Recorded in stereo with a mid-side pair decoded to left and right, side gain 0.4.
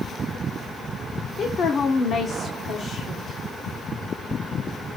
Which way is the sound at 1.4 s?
60° left.